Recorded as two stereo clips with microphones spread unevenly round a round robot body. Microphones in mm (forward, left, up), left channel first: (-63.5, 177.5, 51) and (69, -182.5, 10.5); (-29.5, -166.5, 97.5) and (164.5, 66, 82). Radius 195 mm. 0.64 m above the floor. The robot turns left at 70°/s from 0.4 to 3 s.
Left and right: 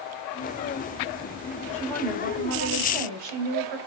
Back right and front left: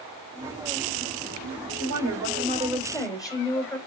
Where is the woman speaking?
40° left, 4.5 m; by 3.8 s 50° right, 4.5 m.